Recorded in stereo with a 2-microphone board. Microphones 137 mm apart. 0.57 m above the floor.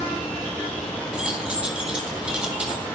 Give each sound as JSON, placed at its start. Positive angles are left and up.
{"t": 1.1, "sound": "keys jangling", "side_deg": -5, "distance_m": 3.5}